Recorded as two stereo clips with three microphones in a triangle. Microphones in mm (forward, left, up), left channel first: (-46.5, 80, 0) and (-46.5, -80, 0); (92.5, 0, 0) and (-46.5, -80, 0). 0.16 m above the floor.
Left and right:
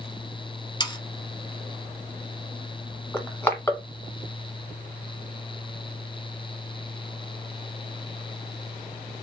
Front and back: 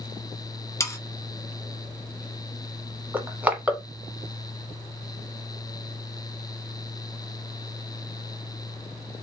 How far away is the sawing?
About 0.9 m.